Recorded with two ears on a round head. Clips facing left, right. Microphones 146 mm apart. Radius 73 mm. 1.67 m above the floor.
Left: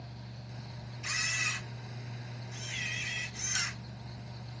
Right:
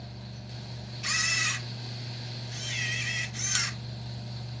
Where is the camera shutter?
70° right (ahead or behind), 1.5 m.